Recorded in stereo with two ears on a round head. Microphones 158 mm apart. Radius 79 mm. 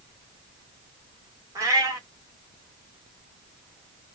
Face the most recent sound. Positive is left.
turn(degrees=-20)  # may be behind; listen again after turning